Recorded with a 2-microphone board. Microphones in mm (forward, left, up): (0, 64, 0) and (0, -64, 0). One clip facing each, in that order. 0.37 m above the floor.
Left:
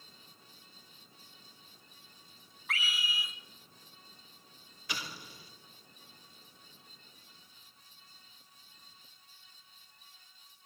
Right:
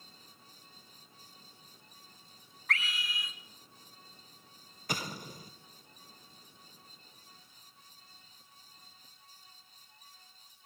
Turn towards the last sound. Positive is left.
turn(degrees=-45)  # may be behind; listen again after turning